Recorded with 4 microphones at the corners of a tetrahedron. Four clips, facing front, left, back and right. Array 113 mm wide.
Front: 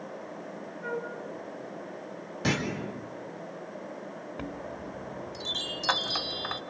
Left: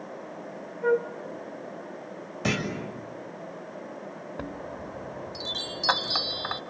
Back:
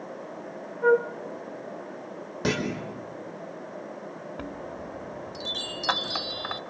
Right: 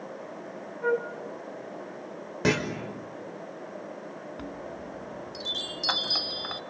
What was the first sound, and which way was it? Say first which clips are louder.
A flute: left 3 dB, back 14 dB; straight behind.